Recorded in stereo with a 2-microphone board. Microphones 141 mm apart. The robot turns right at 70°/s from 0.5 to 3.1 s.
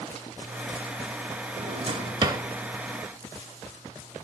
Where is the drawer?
55° right (ahead or behind), 0.9 m; by 2.4 s 25° right (ahead or behind), 0.9 m.